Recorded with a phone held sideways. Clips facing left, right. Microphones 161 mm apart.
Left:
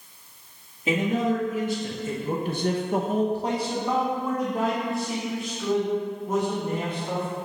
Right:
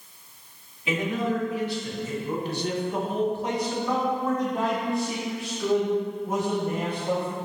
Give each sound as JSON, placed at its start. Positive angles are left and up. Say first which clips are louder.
{"t": 0.9, "sound": "a man speaking", "louder": "left 3 dB", "side_deg": 40, "distance_m": 2.5}